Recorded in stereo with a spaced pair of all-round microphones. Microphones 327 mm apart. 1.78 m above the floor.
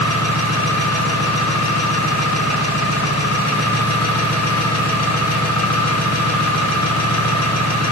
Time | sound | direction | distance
0.0 | an engine running | 55° left (ahead or behind) | 1.4 m